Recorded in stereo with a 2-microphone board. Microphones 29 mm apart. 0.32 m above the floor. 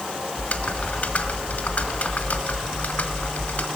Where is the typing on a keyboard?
50° left (ahead or behind), 1.7 m.